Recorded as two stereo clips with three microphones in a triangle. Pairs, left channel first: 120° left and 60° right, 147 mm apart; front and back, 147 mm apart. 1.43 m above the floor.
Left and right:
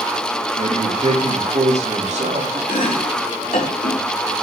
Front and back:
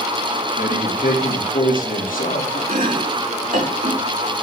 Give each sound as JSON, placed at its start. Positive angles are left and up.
{"t": 0.6, "sound": "a man speaking", "azimuth_deg": -20, "distance_m": 3.0}
{"t": 2.7, "sound": "chopping", "azimuth_deg": 155, "distance_m": 4.0}